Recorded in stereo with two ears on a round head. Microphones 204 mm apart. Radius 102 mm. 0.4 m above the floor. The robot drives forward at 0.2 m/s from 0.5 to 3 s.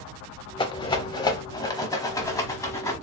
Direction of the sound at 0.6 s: 20° left (ahead or behind).